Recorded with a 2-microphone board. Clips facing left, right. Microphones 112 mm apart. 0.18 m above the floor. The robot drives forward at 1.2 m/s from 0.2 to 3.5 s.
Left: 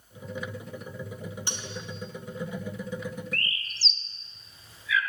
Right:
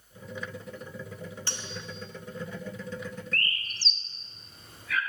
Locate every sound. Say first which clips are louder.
1.5 s cutlery clinking: left 2 dB; 20° left (ahead or behind), 1.0 m; by 1.9 s 15° left (ahead or behind), 1.4 m
3.3 s a bird: right 1 dB; 50° right (ahead or behind), 0.8 m; by 5.0 s 60° right (ahead or behind), 0.7 m